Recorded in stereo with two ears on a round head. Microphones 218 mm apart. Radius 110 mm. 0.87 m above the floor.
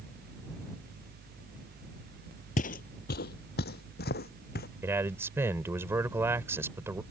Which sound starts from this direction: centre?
A man speaking, at 4.8 s.